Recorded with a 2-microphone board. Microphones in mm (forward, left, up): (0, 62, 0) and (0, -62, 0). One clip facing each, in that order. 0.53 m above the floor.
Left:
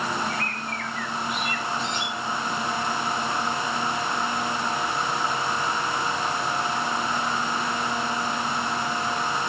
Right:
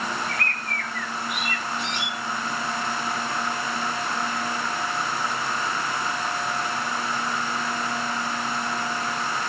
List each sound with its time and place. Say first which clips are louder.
0.3 s a bird: left 1 dB; 80° right, 5.5 m